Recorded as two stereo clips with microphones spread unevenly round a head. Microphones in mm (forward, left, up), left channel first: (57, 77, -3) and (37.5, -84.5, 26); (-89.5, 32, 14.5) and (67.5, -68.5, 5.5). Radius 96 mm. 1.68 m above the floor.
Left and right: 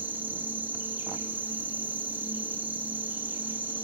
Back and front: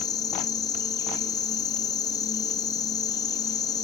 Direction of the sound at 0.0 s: 160° right.